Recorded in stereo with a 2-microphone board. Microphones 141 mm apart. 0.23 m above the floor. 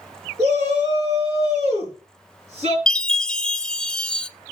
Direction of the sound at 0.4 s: 50° right (ahead or behind).